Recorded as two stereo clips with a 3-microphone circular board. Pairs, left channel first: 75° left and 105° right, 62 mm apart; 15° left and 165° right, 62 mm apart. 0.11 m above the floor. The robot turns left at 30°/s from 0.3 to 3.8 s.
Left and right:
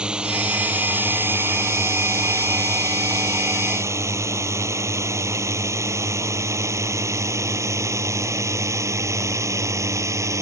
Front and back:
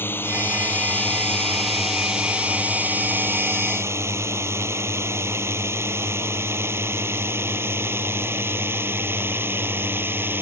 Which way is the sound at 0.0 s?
30° right.